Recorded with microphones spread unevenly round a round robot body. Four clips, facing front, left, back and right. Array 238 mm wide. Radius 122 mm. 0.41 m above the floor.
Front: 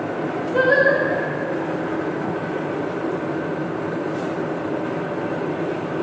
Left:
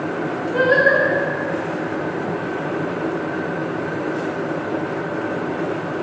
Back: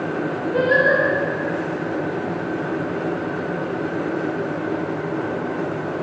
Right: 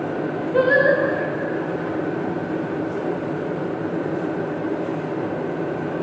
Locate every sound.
0.5 s singing: 90° right, 4.5 m